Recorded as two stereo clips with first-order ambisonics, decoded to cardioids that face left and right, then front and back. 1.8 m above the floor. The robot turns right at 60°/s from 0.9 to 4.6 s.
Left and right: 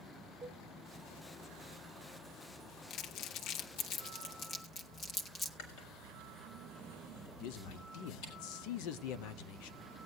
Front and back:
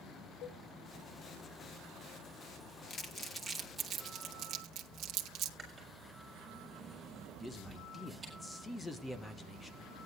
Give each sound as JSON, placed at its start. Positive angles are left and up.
{"t": 0.4, "sound": "a cowbell", "azimuth_deg": -5, "distance_m": 0.8}
{"t": 2.9, "sound": "crumpling", "azimuth_deg": 50, "distance_m": 1.0}
{"t": 5.6, "sound": "chewing", "azimuth_deg": 105, "distance_m": 4.5}
{"t": 7.4, "sound": "a man speaking", "azimuth_deg": 80, "distance_m": 0.9}